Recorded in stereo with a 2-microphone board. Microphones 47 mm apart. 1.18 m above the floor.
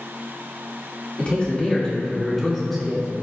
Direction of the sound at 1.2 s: 30° left (ahead or behind).